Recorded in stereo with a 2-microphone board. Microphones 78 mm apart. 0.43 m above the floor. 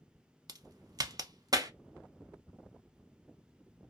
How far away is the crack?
About 0.5 m.